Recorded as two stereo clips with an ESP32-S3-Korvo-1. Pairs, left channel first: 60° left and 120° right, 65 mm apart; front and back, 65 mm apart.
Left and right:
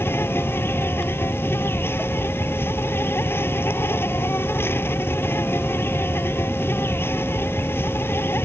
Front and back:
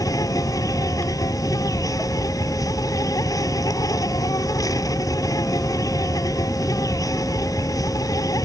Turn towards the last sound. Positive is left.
turn(degrees=10)